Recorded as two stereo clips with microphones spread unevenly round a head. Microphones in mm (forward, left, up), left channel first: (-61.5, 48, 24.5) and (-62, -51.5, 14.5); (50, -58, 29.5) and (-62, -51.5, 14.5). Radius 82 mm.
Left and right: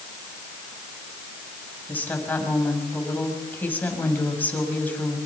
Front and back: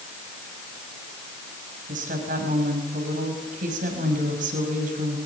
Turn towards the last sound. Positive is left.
turn(degrees=160)